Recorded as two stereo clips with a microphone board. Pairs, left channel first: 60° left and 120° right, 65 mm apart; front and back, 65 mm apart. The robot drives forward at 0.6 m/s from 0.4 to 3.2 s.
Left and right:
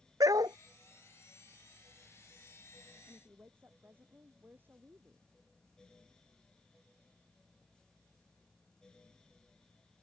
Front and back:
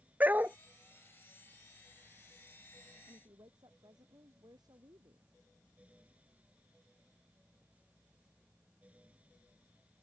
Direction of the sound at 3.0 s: Straight behind.